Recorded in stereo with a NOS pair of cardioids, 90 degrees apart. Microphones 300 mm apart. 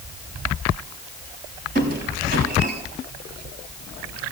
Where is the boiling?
I don't hear boiling.